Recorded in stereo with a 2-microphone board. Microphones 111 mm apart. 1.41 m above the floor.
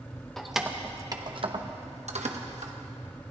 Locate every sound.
0.4 s keys jangling: 5° left (ahead or behind), 1.1 m; by 2.7 s 75° right (ahead or behind), 1.6 m